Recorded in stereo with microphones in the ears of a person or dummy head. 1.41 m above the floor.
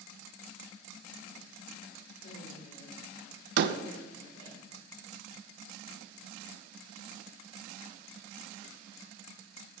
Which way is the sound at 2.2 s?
40° left (ahead or behind).